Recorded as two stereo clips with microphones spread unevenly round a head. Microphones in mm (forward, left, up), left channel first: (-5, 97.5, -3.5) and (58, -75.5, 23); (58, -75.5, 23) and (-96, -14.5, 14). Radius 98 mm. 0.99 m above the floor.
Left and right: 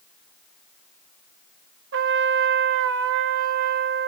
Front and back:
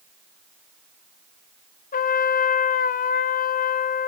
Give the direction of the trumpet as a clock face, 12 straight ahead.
2 o'clock.